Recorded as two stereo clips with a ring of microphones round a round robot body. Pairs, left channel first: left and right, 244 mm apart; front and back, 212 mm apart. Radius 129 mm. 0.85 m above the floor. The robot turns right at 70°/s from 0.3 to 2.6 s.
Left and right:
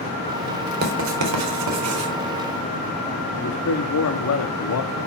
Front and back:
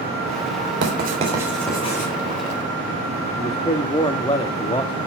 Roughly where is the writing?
Behind right.